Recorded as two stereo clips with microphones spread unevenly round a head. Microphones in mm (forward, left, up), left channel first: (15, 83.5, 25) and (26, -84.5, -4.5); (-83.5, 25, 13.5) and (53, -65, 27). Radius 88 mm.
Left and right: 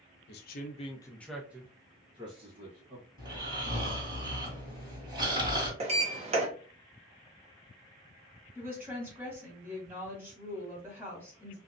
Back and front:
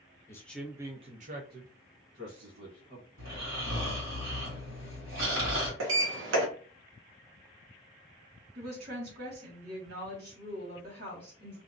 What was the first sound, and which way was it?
A man speaking, 80° left.